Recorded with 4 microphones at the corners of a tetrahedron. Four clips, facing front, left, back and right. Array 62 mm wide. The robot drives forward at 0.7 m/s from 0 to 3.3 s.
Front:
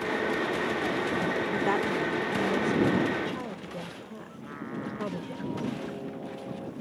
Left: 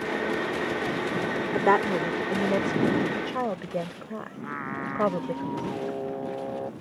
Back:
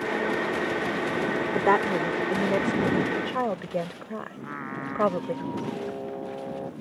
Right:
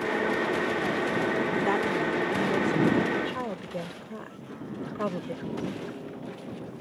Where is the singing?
115° left.